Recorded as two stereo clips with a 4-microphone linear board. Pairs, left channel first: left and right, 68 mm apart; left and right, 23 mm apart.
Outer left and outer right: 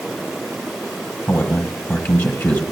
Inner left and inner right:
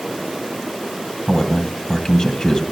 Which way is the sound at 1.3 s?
25° left (ahead or behind).